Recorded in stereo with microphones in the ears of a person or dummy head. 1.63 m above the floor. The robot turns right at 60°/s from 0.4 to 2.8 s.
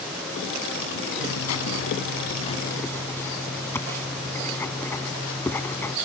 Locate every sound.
1.2 s writing: 70° left; by 6.0 s 165° left